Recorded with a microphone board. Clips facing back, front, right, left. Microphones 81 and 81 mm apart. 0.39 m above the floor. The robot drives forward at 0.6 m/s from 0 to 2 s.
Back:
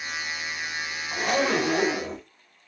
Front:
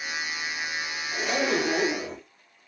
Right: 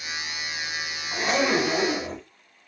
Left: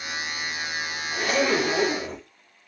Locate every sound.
1.1 s a zipper: 150° right, 0.8 m; by 2.2 s 160° right, 1.3 m